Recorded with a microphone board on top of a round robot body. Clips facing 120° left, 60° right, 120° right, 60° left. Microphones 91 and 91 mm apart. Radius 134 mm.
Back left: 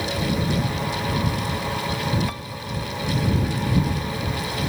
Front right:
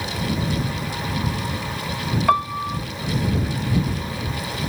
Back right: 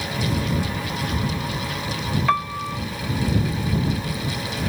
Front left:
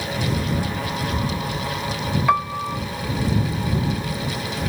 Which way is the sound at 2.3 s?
20° right.